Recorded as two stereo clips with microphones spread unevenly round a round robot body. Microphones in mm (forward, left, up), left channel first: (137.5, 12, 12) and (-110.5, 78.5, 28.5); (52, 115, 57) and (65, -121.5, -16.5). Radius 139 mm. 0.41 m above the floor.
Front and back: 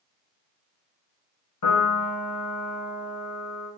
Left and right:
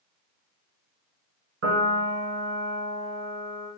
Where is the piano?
45° right, 1.0 m.